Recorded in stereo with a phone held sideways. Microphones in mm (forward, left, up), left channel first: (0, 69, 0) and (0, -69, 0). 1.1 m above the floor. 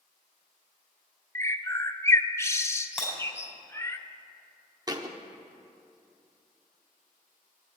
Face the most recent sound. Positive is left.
turn(degrees=-25)  # may be behind; listen again after turning